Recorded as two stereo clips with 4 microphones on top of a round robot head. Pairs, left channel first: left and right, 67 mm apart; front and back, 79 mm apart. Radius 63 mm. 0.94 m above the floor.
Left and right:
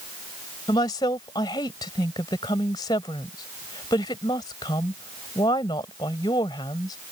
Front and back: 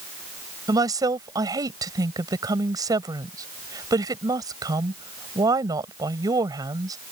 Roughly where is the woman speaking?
Behind left.